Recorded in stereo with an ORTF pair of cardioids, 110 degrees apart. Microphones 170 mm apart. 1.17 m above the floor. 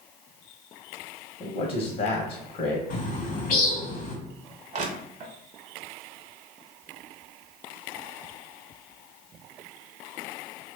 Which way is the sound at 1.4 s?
60° left.